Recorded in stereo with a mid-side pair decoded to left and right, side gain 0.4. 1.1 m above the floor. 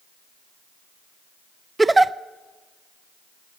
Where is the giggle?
20° right, 0.5 m.